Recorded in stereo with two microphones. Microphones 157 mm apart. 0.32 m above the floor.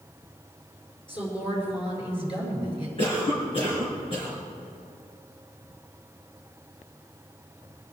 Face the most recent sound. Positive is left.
turn(degrees=40)  # may be behind; listen again after turning